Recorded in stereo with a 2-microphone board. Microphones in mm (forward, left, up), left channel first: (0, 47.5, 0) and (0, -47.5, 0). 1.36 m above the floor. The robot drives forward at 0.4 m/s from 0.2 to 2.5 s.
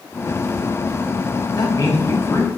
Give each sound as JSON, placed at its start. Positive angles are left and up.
{"t": 1.5, "sound": "a man speaking", "side_deg": 45, "distance_m": 0.7}